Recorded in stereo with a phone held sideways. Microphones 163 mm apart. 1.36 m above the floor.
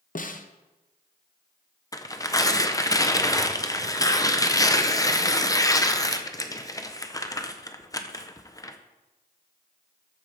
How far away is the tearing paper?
About 0.7 m.